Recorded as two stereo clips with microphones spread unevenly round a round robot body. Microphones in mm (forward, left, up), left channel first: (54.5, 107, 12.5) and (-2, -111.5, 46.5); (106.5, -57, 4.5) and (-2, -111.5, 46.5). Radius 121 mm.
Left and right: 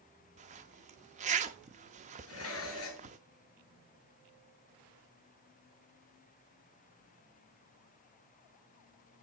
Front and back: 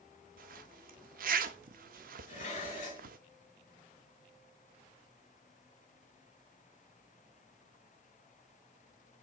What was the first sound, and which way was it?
A zipper, 170° right.